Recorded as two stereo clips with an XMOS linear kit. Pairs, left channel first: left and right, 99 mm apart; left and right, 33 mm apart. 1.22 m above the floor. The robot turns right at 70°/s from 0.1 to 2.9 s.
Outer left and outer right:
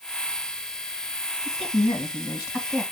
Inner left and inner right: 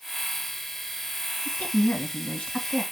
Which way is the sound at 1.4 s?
80° left.